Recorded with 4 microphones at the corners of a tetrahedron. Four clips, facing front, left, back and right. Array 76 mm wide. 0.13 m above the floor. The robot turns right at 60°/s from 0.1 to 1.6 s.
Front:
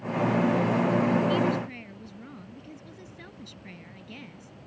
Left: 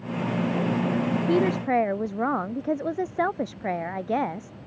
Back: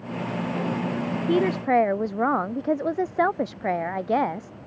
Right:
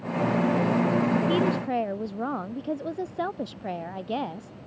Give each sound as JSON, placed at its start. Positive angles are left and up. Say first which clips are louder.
{"t": 1.3, "sound": "a woman speaking", "louder": "left 2 dB, back 6 dB", "azimuth_deg": 150}